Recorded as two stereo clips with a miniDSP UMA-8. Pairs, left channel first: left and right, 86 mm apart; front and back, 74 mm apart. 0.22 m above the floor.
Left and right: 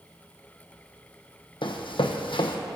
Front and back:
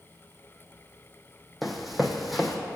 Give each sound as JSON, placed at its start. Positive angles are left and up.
{"t": 1.6, "sound": "running footsteps", "azimuth_deg": 90, "distance_m": 0.7}